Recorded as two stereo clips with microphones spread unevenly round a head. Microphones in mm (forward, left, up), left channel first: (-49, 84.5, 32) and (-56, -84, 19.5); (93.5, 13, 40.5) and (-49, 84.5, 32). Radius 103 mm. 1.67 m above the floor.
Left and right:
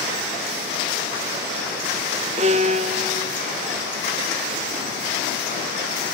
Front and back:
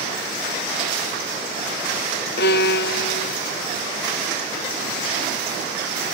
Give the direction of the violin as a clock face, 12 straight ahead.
1 o'clock.